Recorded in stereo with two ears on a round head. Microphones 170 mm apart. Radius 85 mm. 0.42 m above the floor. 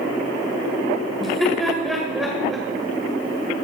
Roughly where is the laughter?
Centre.